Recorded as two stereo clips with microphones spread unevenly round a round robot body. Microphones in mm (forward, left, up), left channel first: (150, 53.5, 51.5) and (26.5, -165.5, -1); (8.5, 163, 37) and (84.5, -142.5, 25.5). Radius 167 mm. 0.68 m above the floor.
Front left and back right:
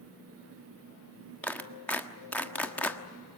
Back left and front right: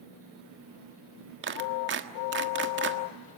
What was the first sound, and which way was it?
A clap, 30° right.